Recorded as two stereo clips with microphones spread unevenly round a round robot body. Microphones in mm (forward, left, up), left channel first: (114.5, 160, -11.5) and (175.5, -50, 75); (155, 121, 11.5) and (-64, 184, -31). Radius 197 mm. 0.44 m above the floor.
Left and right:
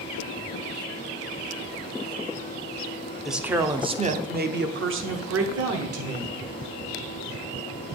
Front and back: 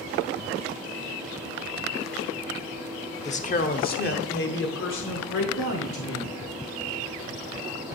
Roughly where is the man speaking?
Ahead left.